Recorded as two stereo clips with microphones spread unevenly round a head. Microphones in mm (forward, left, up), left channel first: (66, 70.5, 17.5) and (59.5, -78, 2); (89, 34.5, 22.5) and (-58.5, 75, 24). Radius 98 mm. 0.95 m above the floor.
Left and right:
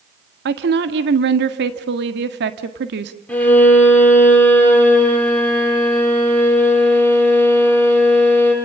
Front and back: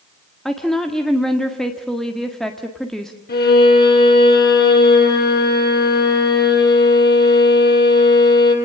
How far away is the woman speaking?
About 1.6 m.